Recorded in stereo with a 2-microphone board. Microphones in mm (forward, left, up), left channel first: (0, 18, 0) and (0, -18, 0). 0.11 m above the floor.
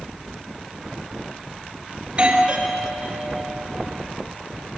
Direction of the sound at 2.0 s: 30° right (ahead or behind).